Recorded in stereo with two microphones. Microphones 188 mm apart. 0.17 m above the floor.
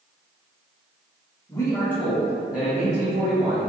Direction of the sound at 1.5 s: 20° left (ahead or behind).